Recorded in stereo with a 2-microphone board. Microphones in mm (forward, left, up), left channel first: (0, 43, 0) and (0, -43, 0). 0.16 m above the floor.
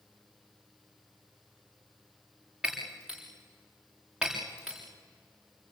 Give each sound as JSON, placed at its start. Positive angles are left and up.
{"t": 2.6, "sound": "breaking glass", "side_deg": -10, "distance_m": 7.5}